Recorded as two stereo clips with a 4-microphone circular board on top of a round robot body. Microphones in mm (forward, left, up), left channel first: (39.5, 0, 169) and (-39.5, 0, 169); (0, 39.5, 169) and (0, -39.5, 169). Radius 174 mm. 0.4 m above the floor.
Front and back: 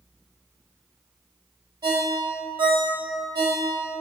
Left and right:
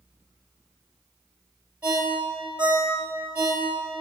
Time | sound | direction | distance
1.8 | a ringtone | 160° right | 1.5 m